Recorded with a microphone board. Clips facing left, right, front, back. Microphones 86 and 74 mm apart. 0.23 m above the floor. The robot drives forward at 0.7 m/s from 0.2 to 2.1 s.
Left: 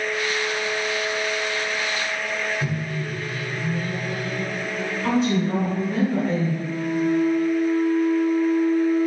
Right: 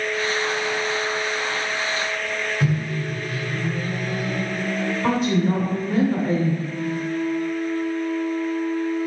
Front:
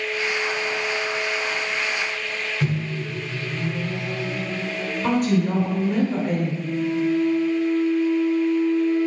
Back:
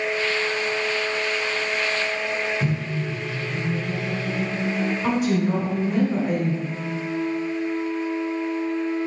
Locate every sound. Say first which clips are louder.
2.6 s a microwave: right 3 dB, even; 85° right, 1.8 m
5.0 s a woman speaking: even, front 3 dB; 95° right, 1.9 m
6.6 s a flute: left 4 dB, front 7 dB; 120° left, 1.6 m